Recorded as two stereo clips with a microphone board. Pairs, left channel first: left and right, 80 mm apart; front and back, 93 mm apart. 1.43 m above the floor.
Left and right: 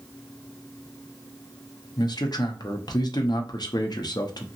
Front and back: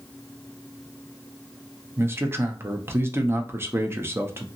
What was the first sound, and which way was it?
A man speaking, 115° left.